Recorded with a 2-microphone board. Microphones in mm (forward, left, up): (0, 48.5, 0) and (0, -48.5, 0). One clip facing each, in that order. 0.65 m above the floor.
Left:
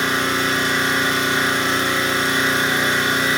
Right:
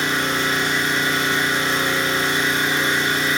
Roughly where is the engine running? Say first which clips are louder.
Left 1 dB; left.